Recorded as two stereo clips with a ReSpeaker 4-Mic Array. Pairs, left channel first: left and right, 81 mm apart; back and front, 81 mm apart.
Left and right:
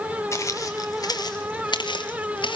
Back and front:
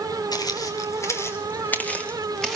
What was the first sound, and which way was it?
Footsteps, 145° left.